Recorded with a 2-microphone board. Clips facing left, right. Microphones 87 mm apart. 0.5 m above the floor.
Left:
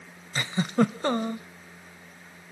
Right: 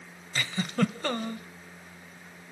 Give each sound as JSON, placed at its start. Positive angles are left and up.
{"t": 0.3, "sound": "a giggle", "side_deg": 25, "distance_m": 0.7}